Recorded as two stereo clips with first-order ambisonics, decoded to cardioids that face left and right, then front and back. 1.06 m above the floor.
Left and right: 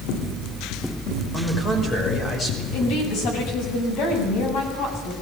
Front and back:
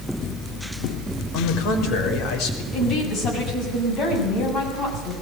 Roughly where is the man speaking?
Ahead left.